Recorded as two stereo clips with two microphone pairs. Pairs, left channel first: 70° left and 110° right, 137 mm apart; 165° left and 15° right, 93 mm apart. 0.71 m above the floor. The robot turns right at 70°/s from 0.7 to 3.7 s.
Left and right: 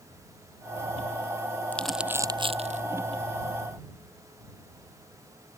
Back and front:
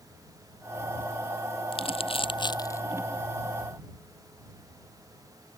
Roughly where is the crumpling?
Behind left.